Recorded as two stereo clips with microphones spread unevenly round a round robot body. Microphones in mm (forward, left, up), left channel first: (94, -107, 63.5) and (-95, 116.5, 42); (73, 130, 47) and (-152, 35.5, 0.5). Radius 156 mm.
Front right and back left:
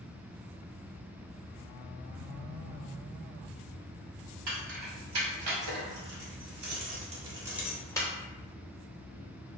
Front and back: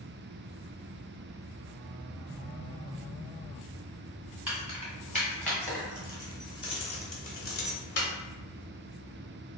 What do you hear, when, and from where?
4.5 s keys jangling: 120° left, 2.0 m; by 8.1 s 20° left, 0.9 m